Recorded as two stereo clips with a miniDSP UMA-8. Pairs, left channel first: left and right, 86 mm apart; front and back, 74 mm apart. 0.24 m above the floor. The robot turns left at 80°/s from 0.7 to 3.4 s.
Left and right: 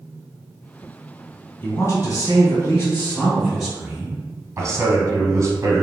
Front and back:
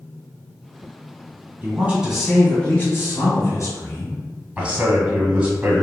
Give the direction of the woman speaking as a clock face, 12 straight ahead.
7 o'clock.